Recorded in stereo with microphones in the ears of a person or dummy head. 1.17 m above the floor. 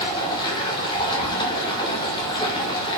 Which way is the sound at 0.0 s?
25° left (ahead or behind).